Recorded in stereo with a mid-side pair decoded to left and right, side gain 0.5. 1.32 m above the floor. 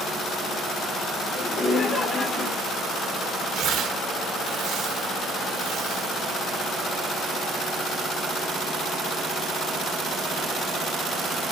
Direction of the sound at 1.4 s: 35° left.